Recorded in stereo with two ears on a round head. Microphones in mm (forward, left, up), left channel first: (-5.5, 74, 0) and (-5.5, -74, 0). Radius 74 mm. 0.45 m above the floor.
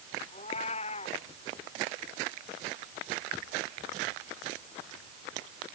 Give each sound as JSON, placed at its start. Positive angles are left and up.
{"t": 0.3, "sound": "a cat meowing", "side_deg": 40}